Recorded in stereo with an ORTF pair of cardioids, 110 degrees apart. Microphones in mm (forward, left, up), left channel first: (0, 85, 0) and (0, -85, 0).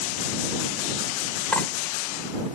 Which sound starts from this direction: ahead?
Cutlery clinking, at 1.5 s.